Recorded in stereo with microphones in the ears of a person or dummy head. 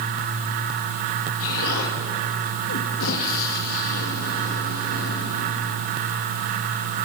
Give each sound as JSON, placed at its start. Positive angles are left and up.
{"t": 1.4, "sound": "an explosion", "side_deg": 80, "distance_m": 2.5}